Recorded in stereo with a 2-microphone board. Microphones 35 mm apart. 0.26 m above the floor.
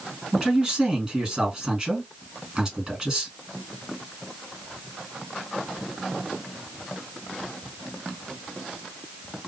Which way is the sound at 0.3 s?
10° right (ahead or behind).